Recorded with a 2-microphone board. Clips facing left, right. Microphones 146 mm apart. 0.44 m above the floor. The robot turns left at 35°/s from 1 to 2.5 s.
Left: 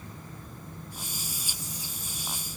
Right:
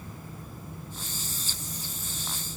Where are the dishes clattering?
I don't hear dishes clattering.